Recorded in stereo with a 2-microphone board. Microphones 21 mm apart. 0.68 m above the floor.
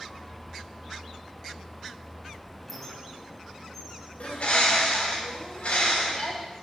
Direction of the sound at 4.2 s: 80° left.